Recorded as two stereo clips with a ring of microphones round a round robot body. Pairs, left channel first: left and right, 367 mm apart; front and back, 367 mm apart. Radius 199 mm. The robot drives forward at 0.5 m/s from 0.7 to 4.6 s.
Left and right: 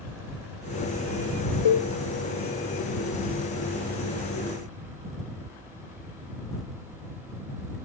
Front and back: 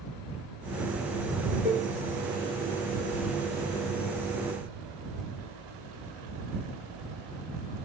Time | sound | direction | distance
1.6 | a cowbell | 95° left | 2.5 m